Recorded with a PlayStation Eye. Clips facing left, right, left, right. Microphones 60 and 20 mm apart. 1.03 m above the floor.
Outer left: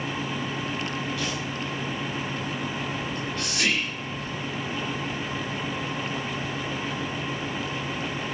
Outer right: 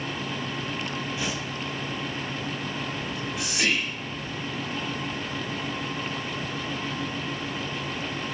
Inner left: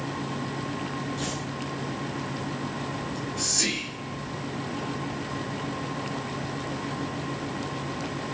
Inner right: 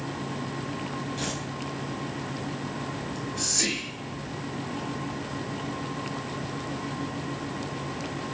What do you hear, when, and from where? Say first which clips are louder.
1.2 s tearing paper: even, even; 20° right (ahead or behind), 4.5 m
3.0 s whispering: outer left 1 dB, even; 10° right (ahead or behind), 2 m